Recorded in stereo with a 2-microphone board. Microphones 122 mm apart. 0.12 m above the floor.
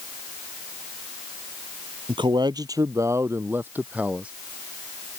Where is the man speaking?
45° right (ahead or behind); by 4.3 s 10° right (ahead or behind).